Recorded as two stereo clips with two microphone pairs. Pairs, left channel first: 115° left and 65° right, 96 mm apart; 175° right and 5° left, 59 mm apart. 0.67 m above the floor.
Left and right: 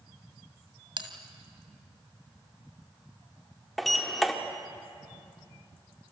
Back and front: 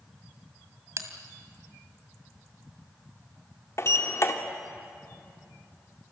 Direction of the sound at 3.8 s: 155° right.